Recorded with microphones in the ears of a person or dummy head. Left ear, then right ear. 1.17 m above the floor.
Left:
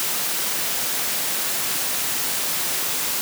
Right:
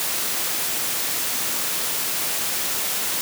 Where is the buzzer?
No buzzer in this recording.